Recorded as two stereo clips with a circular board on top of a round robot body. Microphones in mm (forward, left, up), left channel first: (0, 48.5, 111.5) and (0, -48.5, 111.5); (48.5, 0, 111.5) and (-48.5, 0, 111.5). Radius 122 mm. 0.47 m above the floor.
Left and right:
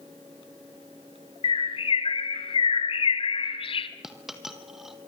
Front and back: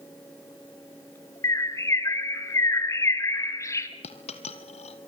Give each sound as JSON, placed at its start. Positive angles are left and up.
{"t": 1.4, "sound": "a bird", "azimuth_deg": 60, "distance_m": 2.5}
{"t": 4.0, "sound": "a dropped coin", "azimuth_deg": -5, "distance_m": 2.0}